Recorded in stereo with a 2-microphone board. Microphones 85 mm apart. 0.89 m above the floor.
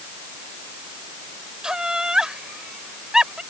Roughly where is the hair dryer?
I don't hear a hair dryer.